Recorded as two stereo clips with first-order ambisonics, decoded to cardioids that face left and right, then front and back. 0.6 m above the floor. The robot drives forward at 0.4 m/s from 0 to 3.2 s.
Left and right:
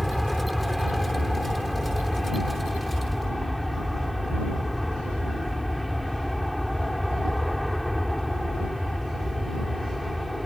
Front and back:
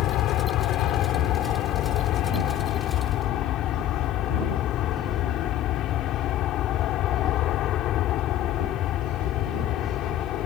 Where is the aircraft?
Straight ahead.